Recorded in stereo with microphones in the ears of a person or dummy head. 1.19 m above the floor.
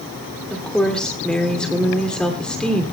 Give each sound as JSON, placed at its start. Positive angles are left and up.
{"t": 0.5, "sound": "a woman speaking", "side_deg": 5, "distance_m": 3.0}